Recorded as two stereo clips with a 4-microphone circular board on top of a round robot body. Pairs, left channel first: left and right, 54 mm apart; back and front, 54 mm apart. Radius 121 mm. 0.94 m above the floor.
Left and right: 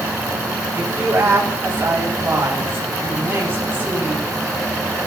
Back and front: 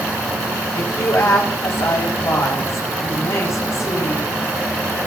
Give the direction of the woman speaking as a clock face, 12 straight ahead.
5 o'clock.